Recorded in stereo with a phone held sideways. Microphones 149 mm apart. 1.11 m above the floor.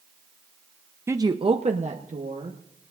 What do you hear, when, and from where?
1.1 s a woman speaking: 15° right (ahead or behind), 0.5 m; by 2.6 s 60° right (ahead or behind), 1.4 m